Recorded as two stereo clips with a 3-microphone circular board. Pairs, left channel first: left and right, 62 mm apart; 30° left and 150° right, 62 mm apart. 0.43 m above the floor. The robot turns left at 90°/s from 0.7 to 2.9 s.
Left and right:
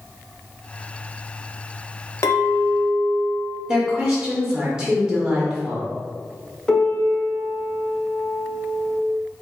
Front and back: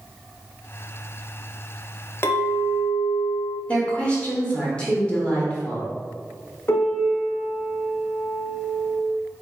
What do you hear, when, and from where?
2.2 s a clink: 70° left, 0.8 m; by 3.6 s 10° left, 0.8 m
3.7 s a woman speaking: 20° right, 1.4 m
6.7 s a piano: 15° left, 1.0 m